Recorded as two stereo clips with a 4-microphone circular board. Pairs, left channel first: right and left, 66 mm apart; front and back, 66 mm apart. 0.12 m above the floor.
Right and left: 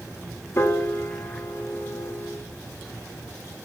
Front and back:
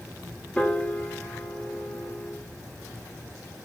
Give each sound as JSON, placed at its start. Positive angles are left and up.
{"t": 0.6, "sound": "a piano", "azimuth_deg": -65, "distance_m": 0.6}